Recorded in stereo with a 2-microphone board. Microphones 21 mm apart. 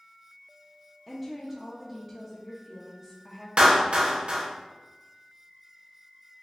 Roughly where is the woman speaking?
Centre.